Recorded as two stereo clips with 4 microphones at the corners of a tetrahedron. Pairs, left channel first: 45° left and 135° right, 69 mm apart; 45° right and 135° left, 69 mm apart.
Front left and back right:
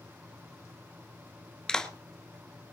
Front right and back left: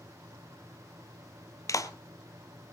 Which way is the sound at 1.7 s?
30° right.